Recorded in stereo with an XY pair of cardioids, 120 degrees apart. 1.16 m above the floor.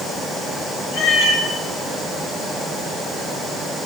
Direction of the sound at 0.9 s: 60° left.